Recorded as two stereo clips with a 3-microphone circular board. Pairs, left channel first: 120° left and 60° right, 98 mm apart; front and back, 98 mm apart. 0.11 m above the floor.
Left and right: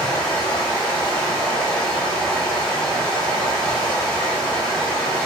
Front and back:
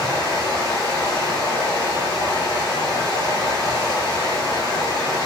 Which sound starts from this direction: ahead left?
Running water, at 0.0 s.